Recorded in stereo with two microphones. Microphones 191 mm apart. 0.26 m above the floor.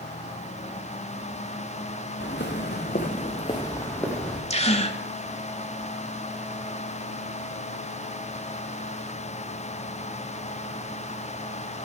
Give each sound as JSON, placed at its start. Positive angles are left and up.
{"t": 2.2, "sound": "footsteps", "side_deg": 80, "distance_m": 1.7}
{"t": 4.5, "sound": "a gasp", "side_deg": 35, "distance_m": 1.0}